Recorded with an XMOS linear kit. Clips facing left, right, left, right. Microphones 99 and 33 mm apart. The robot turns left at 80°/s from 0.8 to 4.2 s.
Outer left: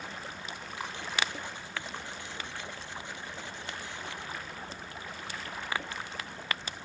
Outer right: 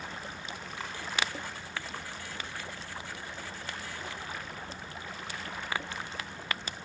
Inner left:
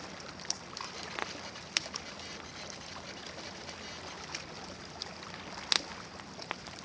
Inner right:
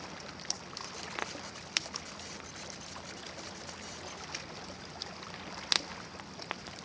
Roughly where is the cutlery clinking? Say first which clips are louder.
Outer left 3 dB, inner left 2 dB; centre.